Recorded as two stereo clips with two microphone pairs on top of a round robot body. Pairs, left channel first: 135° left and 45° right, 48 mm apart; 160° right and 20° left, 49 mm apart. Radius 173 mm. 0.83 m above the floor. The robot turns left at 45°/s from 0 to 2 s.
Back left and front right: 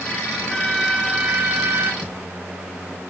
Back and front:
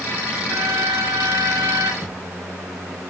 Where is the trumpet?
65° left, 1.7 m; by 1.9 s straight ahead, 1.7 m.